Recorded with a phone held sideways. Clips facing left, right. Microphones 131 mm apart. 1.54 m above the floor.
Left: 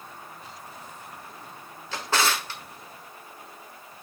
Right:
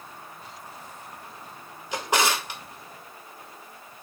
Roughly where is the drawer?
Centre.